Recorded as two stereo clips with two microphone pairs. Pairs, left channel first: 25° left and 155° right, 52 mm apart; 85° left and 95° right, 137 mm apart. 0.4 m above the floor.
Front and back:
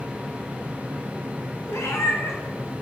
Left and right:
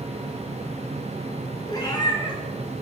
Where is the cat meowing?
30° left, 0.9 m.